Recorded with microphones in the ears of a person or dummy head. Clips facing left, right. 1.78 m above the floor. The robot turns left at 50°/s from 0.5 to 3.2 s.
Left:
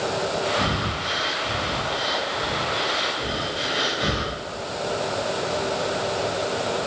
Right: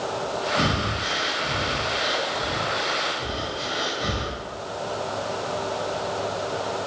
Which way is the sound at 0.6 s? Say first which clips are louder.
Right 1 dB; 60° right (ahead or behind).